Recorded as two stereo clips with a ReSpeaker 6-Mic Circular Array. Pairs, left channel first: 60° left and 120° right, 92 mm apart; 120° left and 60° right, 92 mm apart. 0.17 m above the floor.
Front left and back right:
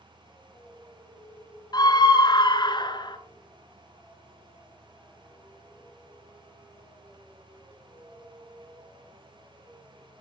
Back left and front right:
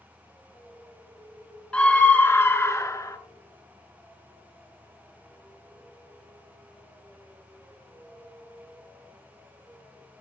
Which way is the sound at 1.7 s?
45° left.